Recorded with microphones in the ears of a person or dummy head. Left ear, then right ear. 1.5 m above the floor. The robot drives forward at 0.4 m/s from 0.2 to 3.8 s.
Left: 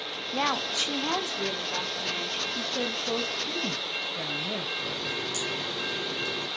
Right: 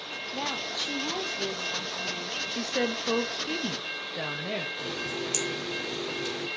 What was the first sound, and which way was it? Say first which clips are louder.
A woman speaking: left 5 dB; 55° left (ahead or behind).